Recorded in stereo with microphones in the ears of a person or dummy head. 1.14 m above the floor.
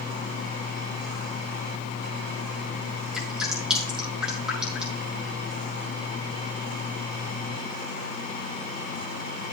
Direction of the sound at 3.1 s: 5° right (ahead or behind).